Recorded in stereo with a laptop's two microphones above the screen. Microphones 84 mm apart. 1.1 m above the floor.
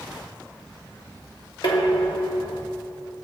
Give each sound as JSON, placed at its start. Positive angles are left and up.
{"t": 1.6, "sound": "dishes clattering", "side_deg": 65, "distance_m": 1.5}